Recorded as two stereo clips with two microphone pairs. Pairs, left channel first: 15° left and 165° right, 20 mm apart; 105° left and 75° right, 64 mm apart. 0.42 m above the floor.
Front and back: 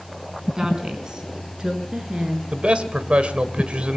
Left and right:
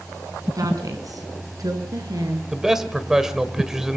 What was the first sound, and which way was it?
A woman speaking, 100° right.